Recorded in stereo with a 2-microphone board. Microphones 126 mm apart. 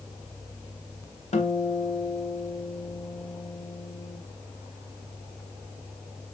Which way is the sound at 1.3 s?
65° left (ahead or behind).